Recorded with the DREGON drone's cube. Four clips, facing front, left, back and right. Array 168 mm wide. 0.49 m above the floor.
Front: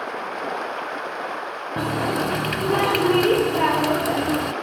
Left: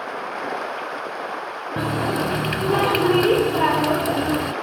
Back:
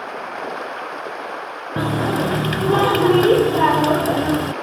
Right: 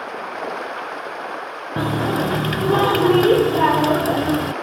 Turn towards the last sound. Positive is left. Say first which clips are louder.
# right 2 dB, back 3 dB
turn(degrees=-140)